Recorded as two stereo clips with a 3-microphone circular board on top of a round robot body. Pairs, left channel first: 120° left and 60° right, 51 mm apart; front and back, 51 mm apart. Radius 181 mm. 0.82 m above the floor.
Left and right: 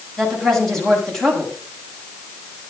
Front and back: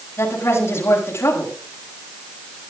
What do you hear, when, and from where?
0.2 s a woman speaking: 35° left, 7 m